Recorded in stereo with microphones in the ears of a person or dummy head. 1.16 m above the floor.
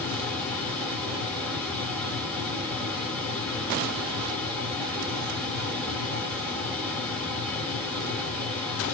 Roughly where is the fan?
Centre.